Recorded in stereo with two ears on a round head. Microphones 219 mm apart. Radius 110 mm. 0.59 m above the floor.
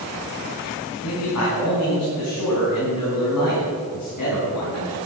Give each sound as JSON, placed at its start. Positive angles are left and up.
{"t": 1.0, "sound": "a man speaking", "side_deg": 70, "distance_m": 5.0}